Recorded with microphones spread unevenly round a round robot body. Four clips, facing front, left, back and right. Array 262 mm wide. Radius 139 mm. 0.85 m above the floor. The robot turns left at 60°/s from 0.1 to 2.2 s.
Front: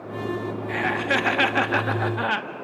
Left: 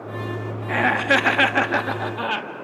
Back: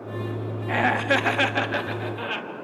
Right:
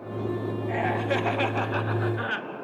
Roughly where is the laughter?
Behind left.